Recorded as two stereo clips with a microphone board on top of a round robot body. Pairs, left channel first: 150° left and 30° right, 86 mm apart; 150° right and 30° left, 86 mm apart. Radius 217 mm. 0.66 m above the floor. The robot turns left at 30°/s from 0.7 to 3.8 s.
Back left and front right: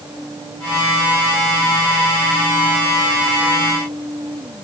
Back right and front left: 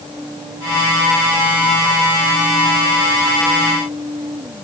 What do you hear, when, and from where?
Only background noise.